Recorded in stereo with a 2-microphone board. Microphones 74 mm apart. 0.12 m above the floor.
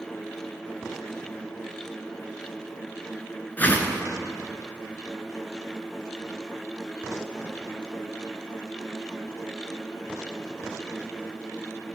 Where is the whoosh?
25° left (ahead or behind), 1.2 m.